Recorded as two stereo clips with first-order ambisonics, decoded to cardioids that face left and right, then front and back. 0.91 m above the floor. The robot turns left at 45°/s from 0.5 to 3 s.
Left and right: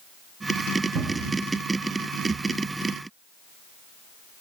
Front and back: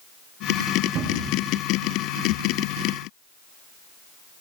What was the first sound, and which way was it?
A cupboard door, 130° right.